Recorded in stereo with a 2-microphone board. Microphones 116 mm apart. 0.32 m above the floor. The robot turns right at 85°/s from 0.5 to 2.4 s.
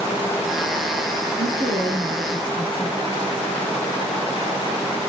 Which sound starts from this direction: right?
A woman speaking, at 1.4 s.